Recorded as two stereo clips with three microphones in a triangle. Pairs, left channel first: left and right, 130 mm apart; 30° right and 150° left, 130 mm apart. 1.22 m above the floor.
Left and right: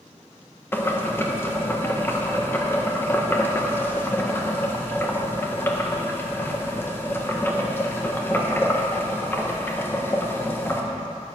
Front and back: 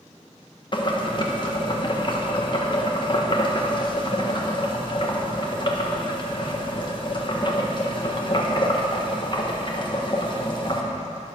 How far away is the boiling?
About 1.4 m.